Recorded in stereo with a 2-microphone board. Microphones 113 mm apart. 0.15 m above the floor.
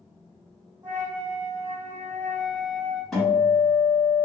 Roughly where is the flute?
Right.